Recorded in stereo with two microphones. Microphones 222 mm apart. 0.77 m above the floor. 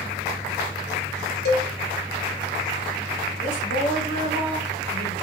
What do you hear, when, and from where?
1.4 s a cowbell: 50° left (ahead or behind), 1.4 m
3.4 s a woman speaking: 40° left (ahead or behind), 3.5 m